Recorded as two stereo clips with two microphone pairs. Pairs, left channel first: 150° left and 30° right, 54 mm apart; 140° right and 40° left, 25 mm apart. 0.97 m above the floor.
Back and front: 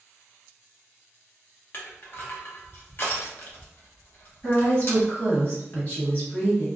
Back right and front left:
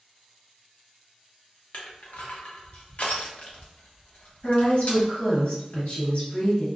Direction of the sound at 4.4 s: 160° right.